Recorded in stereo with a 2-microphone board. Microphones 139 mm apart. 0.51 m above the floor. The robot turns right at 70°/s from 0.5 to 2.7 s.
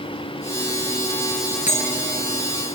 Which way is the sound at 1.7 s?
60° left (ahead or behind).